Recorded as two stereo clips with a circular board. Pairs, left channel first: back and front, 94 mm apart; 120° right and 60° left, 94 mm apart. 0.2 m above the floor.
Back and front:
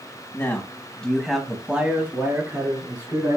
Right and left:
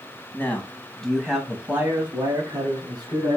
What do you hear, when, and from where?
0.3 s a man speaking: 155° right, 1.1 m; by 3.4 s 35° left, 1.6 m